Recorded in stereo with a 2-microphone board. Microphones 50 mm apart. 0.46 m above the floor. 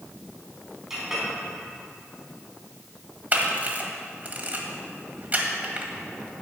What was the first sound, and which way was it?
A clink, 10° right (ahead or behind).